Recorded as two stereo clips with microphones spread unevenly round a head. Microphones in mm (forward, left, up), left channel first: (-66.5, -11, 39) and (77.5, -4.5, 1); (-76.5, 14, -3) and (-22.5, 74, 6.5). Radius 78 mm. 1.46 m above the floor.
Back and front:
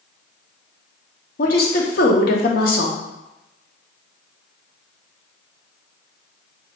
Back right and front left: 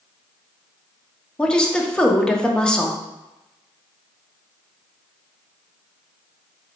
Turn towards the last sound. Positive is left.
turn(degrees=150)